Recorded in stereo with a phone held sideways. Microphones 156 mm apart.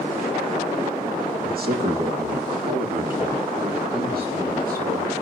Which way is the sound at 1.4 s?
70° right (ahead or behind).